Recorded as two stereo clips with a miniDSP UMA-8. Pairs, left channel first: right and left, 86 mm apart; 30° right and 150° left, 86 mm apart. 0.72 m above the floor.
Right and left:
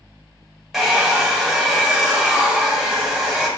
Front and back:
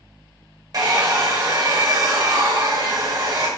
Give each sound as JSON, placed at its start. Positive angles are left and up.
{"t": 0.7, "sound": "a hair dryer", "azimuth_deg": 175, "distance_m": 0.9}